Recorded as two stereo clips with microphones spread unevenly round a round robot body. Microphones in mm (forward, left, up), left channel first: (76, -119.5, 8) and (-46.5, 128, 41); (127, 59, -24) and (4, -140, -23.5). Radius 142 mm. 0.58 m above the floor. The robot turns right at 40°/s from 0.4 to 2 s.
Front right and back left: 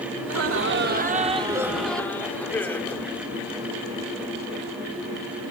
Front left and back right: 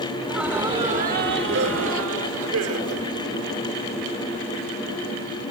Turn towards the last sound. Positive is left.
turn(degrees=-145)